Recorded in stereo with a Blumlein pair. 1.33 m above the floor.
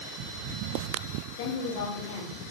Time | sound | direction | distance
1.4 | a woman speaking | 50° left | 1.9 m